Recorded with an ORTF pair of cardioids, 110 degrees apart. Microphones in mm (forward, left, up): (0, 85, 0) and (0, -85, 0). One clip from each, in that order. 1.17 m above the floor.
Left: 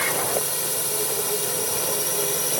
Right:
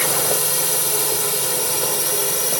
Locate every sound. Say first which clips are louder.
0.0 s a drone: right 3 dB; 40° right; by 2.6 s 20° right